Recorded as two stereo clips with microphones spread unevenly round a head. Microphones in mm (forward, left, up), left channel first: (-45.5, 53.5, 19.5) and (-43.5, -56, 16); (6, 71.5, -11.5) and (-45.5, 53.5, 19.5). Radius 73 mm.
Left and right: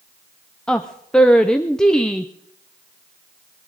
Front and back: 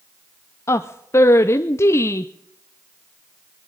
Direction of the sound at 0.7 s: 5° left.